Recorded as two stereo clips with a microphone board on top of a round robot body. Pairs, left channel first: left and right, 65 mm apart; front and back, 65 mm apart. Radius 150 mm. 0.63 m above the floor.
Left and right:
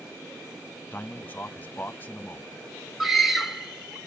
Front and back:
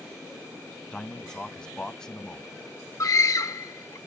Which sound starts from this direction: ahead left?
A man speaking, at 0.9 s.